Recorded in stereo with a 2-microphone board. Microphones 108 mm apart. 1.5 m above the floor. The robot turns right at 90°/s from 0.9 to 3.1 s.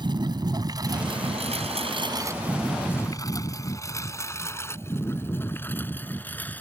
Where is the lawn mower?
45° right (ahead or behind); by 6.6 s 15° left (ahead or behind).